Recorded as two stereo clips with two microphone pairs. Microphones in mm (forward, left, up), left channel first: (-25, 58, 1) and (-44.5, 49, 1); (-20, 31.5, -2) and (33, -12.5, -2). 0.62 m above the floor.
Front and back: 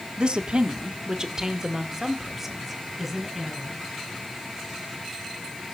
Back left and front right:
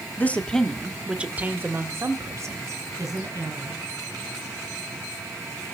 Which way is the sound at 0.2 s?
165° right.